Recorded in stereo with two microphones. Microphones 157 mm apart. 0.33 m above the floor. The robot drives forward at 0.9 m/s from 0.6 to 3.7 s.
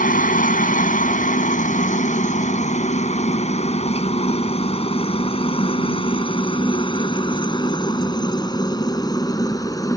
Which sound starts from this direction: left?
A helicopter, at 0.0 s.